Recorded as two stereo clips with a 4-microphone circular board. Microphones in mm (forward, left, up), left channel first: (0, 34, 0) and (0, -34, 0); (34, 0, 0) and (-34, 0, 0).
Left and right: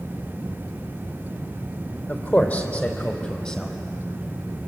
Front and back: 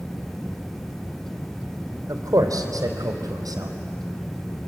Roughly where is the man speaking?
Behind left.